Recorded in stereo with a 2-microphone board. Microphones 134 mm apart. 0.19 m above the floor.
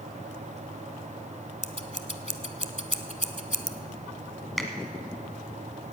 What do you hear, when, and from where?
1.6 s scissors: 55° left (ahead or behind), 0.6 m
4.6 s a finger snap: centre (ahead or behind), 1.2 m